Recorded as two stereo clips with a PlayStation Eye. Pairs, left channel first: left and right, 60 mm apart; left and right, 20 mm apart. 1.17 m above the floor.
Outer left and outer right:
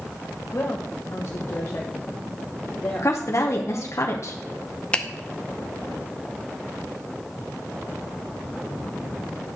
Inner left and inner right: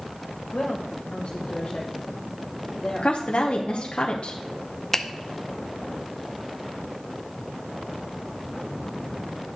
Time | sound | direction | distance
0.5 | a woman speaking | 45° left (ahead or behind) | 1.1 m
3.0 | a woman speaking | 55° left (ahead or behind) | 0.8 m
4.9 | a finger snap | 20° left (ahead or behind) | 0.6 m